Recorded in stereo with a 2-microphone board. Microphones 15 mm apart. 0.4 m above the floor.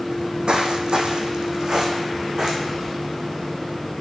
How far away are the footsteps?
About 1.2 m.